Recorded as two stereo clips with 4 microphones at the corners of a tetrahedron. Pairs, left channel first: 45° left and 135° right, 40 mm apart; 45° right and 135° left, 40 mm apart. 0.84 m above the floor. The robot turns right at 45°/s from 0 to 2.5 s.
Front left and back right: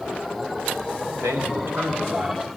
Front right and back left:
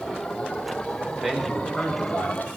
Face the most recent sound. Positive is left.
turn(degrees=-75)